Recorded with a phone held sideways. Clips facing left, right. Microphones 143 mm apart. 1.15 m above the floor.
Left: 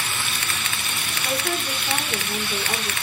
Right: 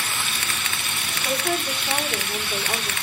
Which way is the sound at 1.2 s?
5° left (ahead or behind).